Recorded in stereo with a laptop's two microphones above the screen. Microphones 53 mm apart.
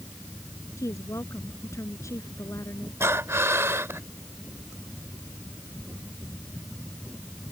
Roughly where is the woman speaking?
Left.